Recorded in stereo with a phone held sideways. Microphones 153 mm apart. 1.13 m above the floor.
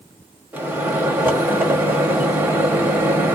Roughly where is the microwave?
Centre.